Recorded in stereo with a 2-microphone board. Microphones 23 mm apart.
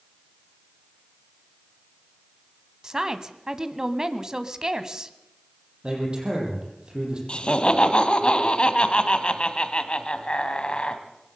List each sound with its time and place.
2.8 s a woman speaking: 30° right (ahead or behind), 1.4 m
5.8 s a man speaking: 45° right (ahead or behind), 8.5 m
7.3 s laughter: 50° left (ahead or behind), 2.5 m